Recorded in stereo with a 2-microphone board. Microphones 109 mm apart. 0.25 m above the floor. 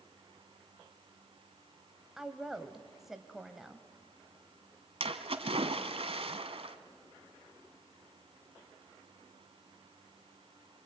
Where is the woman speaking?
5° right (ahead or behind), 1.0 m.